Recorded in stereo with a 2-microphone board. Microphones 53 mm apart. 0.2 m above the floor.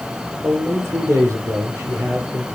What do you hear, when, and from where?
0.4 s a man speaking: 55° right (ahead or behind), 6.5 m